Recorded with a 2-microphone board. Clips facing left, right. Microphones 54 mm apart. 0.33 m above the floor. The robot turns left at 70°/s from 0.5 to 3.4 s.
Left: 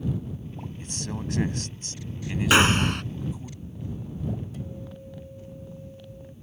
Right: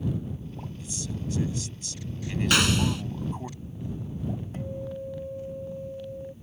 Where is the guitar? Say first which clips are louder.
Right 5 dB; 40° right (ahead or behind).